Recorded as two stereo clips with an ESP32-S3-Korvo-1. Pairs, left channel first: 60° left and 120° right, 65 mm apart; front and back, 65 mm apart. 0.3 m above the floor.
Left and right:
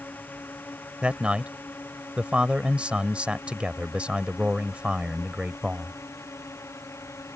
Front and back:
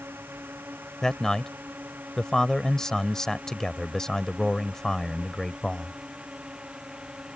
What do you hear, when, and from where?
0.0 s a drone: 125° left; by 7.4 s 105° left
1.0 s a man speaking: 75° right